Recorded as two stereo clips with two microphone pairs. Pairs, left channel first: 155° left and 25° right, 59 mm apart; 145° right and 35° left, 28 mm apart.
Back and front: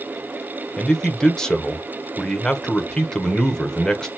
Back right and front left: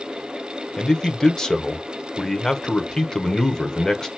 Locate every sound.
0.8 s a man speaking: 150° right, 1.1 m